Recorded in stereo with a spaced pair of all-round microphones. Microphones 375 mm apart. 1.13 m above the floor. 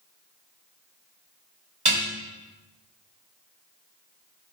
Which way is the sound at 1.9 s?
80° right.